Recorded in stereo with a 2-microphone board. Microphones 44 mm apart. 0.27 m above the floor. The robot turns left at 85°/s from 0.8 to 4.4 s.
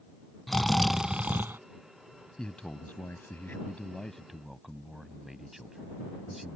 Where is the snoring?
5° left; by 1.6 s 65° right.